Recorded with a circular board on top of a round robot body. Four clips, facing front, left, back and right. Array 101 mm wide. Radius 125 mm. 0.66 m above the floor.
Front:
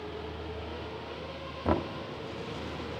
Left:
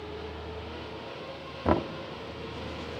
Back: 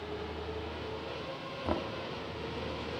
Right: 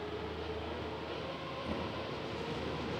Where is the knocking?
70° left, 0.9 m.